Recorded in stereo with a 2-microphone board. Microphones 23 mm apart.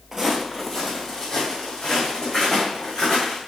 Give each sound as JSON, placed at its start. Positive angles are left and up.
{"t": 0.1, "sound": "footsteps", "side_deg": -10, "distance_m": 0.9}